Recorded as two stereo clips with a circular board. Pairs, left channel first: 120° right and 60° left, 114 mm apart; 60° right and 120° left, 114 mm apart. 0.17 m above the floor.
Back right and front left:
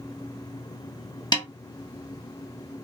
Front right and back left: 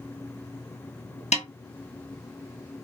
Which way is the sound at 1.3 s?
70° right.